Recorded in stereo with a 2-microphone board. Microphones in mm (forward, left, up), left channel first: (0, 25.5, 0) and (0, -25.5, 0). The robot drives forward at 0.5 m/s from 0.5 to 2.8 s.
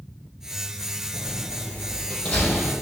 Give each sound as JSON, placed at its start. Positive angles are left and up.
{"t": 1.1, "sound": "a door slam", "side_deg": 20, "distance_m": 4.0}